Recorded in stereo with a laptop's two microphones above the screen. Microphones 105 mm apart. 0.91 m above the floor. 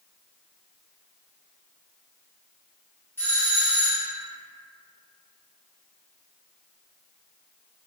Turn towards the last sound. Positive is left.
turn(degrees=20)  # may be behind; listen again after turning